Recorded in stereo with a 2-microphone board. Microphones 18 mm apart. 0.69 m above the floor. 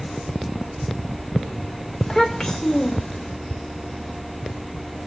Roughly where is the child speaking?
Centre.